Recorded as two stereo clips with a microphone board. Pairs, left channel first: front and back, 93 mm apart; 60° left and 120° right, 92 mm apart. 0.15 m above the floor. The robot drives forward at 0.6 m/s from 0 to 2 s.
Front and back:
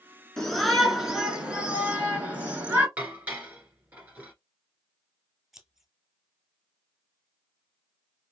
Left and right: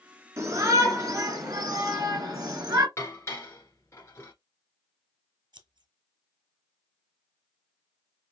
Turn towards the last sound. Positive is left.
turn(degrees=-95)